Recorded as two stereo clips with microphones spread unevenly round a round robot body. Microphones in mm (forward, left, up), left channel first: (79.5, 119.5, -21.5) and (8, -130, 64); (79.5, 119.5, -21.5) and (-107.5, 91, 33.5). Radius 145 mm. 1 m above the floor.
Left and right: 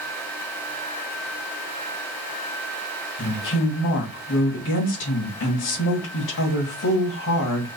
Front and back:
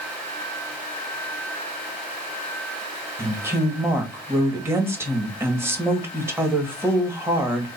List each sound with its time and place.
3.2 s a woman speaking: 105° left, 1.8 m